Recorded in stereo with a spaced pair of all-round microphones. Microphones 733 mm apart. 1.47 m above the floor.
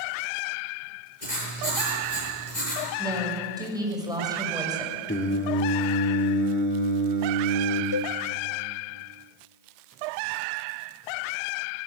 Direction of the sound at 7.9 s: 35° left (ahead or behind).